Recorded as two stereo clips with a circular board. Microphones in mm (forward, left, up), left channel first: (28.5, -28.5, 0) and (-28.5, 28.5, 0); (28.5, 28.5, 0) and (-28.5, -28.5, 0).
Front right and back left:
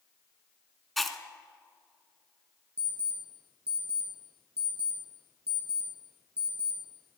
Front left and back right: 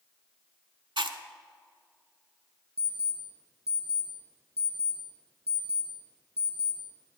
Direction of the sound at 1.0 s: 135° right.